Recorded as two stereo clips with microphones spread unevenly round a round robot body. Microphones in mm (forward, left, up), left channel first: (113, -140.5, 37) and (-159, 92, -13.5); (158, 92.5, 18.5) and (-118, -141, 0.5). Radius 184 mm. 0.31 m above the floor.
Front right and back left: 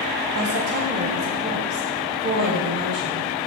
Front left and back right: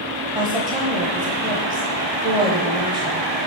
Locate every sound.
0.3 s a woman speaking: 155° left, 1.0 m